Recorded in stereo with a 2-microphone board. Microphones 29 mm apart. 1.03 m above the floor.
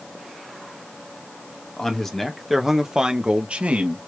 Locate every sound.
1.8 s a man speaking: 20° left (ahead or behind), 1.1 m; by 4.0 s 60° right (ahead or behind), 1.0 m